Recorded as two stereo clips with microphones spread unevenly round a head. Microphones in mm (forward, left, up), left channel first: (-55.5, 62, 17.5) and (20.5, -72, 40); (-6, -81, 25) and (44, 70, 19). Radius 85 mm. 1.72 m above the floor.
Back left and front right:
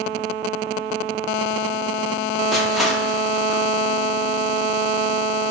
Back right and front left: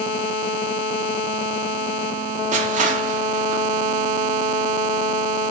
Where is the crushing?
30° left, 4 m.